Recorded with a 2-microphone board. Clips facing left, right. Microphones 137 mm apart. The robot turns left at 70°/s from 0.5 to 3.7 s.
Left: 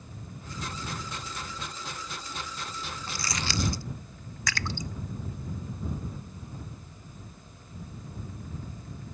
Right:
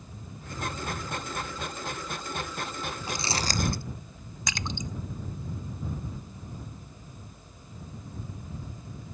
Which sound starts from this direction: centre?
Crumpling, at 3.1 s.